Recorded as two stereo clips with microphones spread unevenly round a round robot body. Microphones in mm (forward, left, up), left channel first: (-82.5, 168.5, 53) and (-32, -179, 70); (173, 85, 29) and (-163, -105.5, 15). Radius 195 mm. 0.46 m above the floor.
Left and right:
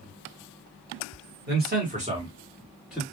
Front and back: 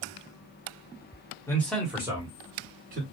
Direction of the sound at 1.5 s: 50° right.